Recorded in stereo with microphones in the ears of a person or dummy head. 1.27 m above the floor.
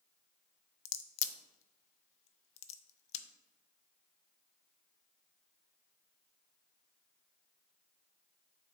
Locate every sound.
0.8 s a crack: 40° left (ahead or behind), 0.5 m